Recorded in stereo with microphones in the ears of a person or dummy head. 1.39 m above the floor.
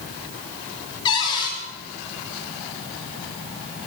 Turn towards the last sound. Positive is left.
turn(degrees=25)  # may be behind; listen again after turning